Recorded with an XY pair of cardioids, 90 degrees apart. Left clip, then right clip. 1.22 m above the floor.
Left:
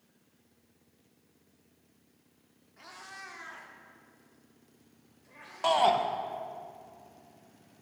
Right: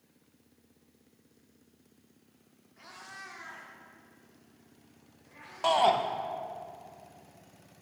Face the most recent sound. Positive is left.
turn(degrees=0)